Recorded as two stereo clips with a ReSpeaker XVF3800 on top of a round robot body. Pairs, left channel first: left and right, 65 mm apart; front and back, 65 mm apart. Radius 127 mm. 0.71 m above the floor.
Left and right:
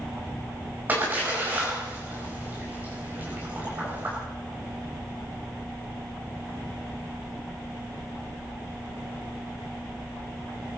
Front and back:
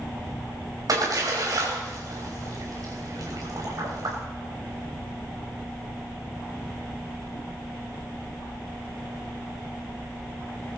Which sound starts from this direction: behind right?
A splash, at 0.9 s.